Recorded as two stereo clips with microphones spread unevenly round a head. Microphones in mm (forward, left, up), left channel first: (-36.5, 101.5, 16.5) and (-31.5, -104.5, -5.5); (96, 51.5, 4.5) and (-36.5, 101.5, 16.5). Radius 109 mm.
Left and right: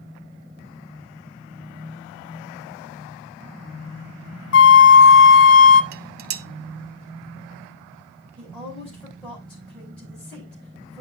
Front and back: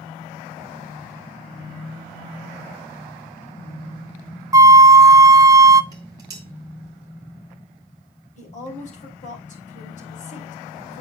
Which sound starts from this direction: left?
A flute, at 4.5 s.